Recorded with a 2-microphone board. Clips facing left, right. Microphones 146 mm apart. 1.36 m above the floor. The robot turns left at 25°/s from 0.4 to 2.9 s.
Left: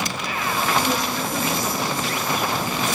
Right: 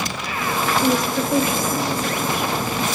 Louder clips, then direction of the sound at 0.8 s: Right 5 dB; 45° right.